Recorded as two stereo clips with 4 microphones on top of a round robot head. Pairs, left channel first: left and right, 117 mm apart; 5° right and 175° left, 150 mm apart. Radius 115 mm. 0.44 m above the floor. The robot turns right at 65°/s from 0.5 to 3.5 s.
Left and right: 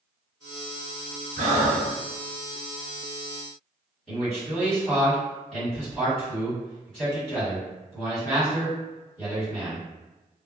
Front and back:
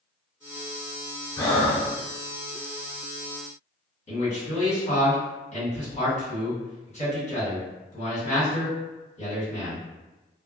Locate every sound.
1.4 s breathing: 80° right, 0.8 m; by 1.9 s 45° right, 0.8 m
4.1 s a man speaking: 5° left, 1.9 m